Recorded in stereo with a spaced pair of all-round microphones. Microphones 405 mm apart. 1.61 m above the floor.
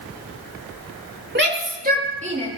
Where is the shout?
25° right (ahead or behind), 3.5 m; by 2.5 s 15° right (ahead or behind), 4.5 m.